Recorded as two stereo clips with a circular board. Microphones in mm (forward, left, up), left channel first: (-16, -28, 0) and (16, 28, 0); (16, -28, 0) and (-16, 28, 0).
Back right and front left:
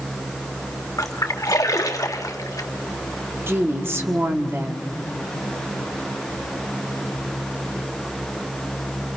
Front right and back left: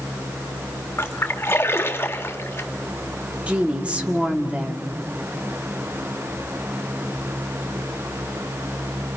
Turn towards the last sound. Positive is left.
turn(degrees=55)